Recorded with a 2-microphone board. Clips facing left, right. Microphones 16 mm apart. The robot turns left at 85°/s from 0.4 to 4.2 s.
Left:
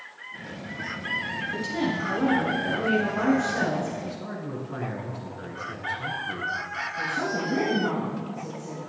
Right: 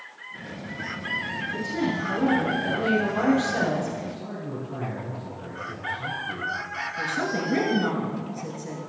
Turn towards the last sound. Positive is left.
turn(degrees=-55)  # may be behind; listen again after turning